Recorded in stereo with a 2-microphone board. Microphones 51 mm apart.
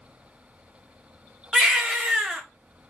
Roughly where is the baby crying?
Centre.